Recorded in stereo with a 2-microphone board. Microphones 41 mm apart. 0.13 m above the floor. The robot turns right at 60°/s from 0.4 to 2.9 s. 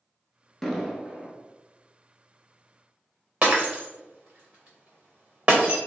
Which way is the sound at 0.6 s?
175° left.